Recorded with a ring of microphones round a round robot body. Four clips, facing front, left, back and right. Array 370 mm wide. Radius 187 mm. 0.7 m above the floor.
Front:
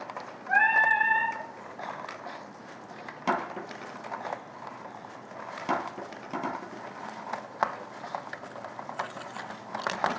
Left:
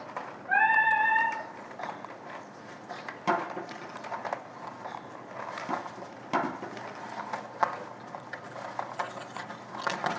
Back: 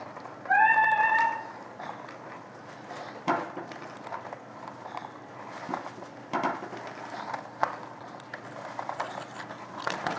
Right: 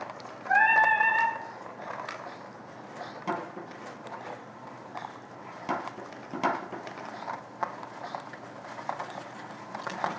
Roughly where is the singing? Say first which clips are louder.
Right 2 dB, back 2 dB; behind.